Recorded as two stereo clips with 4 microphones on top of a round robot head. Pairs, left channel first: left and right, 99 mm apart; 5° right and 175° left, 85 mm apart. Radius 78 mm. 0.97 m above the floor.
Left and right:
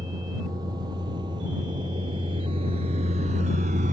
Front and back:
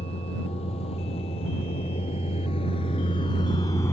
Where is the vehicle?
30° right; by 3.9 s 80° right.